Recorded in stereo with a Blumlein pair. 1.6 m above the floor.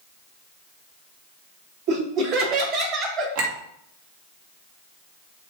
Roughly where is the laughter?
Ahead right.